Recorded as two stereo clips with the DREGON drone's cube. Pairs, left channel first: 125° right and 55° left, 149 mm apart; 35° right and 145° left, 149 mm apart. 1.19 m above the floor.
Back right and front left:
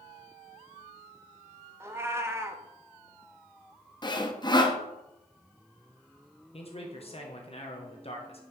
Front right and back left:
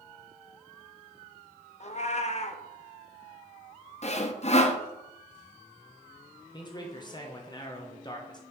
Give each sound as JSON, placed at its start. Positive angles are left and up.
{"t": 1.8, "sound": "a cat meowing", "azimuth_deg": -15, "distance_m": 0.7}
{"t": 4.0, "sound": "sawing", "azimuth_deg": -70, "distance_m": 0.8}
{"t": 6.5, "sound": "a man speaking", "azimuth_deg": -90, "distance_m": 1.0}